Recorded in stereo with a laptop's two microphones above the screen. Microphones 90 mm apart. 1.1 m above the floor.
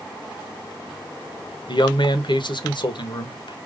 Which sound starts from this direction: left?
A man speaking, at 1.7 s.